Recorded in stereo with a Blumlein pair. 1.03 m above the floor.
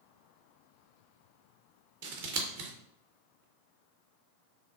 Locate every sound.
2.0 s scissors: 50° right, 0.6 m